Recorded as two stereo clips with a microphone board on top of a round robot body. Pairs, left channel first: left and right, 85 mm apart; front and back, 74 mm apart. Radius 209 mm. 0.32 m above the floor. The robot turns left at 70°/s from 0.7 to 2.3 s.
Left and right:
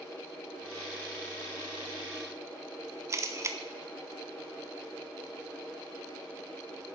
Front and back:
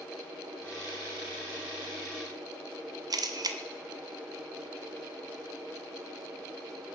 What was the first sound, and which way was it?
A camera shutter, 145° right.